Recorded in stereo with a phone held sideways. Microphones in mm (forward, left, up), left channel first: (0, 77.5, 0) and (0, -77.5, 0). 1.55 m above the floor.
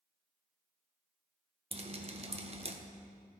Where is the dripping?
40° right (ahead or behind), 0.8 m.